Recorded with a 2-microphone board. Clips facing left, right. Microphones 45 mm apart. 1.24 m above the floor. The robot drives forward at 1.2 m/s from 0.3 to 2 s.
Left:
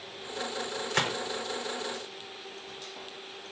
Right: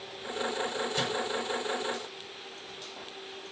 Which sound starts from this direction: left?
A gunshot, at 0.9 s.